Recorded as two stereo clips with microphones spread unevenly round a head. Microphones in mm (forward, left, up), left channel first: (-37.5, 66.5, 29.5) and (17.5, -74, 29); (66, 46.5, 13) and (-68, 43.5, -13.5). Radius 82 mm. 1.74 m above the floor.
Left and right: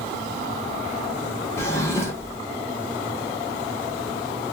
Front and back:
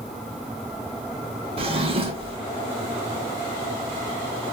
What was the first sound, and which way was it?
A drawer, 170° left.